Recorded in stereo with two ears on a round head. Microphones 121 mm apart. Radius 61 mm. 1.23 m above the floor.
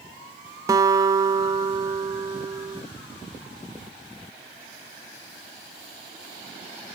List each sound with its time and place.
0.7 s a guitar: 25° right (ahead or behind), 0.6 m